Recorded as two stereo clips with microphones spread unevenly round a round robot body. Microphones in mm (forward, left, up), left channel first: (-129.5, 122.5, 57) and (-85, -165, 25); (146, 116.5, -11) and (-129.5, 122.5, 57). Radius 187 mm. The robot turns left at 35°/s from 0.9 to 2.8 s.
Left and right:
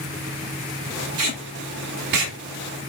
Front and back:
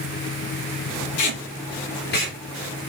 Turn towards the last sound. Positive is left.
turn(degrees=-85)